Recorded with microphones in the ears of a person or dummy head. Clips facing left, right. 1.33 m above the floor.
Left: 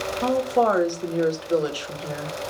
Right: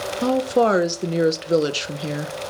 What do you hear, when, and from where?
0.2 s a woman speaking: 30° right (ahead or behind), 1.0 m